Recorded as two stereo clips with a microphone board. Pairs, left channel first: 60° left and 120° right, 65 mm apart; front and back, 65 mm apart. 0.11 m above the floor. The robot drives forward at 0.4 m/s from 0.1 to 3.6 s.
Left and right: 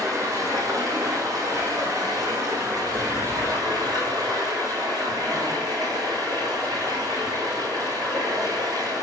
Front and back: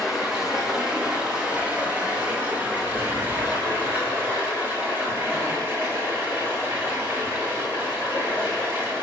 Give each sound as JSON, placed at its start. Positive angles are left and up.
{"t": 0.0, "sound": "running water", "azimuth_deg": -95, "distance_m": 3.0}